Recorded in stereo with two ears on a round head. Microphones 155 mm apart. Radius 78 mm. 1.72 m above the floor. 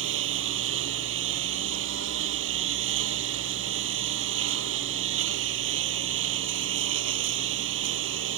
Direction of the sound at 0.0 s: 85° right.